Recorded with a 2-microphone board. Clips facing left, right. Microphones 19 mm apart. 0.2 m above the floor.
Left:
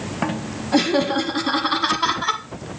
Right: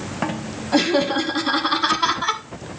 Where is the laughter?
Centre (ahead or behind), 1.4 m.